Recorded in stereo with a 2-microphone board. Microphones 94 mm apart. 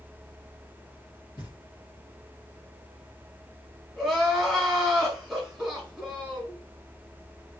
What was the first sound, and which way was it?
Knocking, 60° left (ahead or behind).